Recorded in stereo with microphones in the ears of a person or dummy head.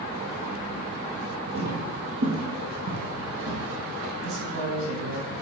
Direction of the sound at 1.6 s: 60° right (ahead or behind).